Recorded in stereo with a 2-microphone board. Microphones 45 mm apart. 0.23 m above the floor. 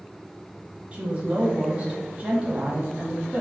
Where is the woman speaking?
30° right (ahead or behind), 1.4 m.